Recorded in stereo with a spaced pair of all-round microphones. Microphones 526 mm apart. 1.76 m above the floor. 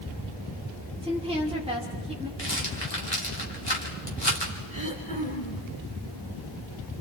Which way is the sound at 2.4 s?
50° left (ahead or behind).